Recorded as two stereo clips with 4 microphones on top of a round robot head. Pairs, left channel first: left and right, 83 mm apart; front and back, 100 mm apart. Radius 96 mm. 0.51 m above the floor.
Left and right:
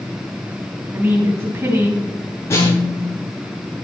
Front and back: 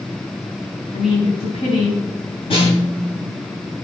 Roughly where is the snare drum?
Ahead left.